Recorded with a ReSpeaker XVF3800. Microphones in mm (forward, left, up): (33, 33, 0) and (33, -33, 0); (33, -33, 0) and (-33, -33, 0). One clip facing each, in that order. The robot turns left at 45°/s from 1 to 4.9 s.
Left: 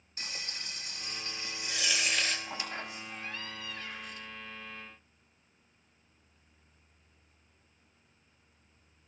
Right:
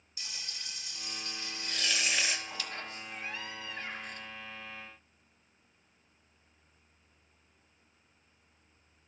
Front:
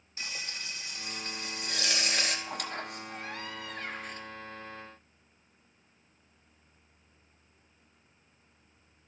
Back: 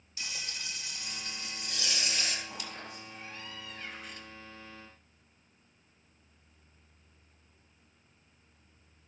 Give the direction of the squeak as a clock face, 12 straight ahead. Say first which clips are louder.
Left 2 dB, front 6 dB; 11 o'clock.